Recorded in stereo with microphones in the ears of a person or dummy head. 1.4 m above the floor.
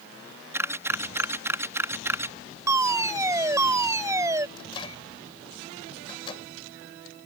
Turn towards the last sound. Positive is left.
turn(degrees=30)  # may be behind; listen again after turning